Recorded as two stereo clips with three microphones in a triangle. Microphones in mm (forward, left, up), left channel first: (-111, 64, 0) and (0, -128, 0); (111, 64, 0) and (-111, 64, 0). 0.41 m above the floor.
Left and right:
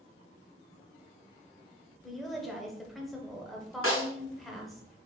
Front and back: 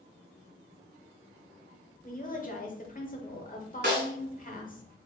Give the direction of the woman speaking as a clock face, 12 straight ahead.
11 o'clock.